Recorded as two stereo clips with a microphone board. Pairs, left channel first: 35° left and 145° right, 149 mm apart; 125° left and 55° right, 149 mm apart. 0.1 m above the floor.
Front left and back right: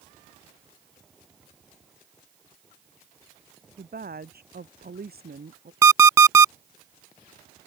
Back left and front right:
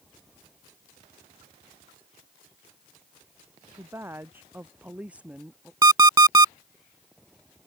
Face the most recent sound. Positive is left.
turn(degrees=-90)